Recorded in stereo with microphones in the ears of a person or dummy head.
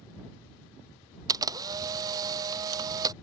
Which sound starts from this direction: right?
A camera shutter, at 1.3 s.